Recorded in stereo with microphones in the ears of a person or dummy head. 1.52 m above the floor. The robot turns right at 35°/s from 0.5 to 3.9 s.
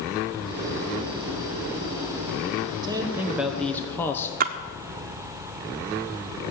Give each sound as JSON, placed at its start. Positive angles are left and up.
{"t": 2.8, "sound": "a man speaking", "azimuth_deg": -20, "distance_m": 1.0}
{"t": 4.4, "sound": "a splash", "side_deg": -45, "distance_m": 1.0}